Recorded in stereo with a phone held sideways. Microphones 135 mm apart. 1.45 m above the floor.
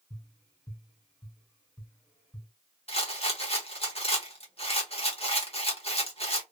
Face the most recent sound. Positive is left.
turn(degrees=45)  # may be behind; listen again after turning